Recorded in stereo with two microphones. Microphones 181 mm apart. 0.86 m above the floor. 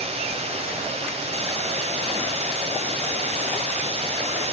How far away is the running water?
About 1.9 m.